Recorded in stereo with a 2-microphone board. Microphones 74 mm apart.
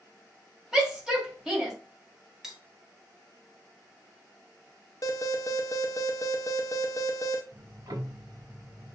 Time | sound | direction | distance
0.7 | a shout | 5° right (ahead or behind) | 2 m
2.4 | cutlery clinking | 5° right (ahead or behind) | 0.9 m
5.0 | an alarm | 40° left (ahead or behind) | 0.6 m
7.5 | ticking | 55° right (ahead or behind) | 0.5 m